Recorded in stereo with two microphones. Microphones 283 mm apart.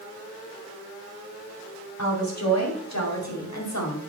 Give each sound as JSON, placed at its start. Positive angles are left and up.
{"t": 2.0, "sound": "a woman speaking", "side_deg": 70, "distance_m": 3.0}